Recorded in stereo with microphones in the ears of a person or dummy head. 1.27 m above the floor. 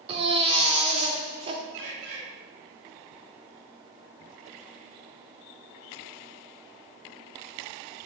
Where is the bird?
70° right (ahead or behind), 2 m.